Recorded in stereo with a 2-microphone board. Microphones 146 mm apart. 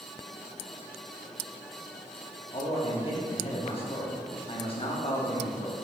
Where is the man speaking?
45° left (ahead or behind), 3.5 m.